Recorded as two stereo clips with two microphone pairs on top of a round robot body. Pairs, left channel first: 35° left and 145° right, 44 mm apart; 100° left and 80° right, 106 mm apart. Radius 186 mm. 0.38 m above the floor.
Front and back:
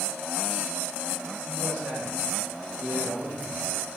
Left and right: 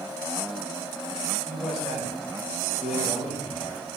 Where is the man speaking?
170° right, 3.5 m.